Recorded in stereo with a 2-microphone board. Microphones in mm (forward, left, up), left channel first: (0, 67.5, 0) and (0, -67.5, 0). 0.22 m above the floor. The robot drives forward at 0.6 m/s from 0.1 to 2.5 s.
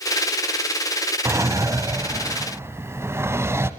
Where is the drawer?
20° right (ahead or behind), 0.6 m.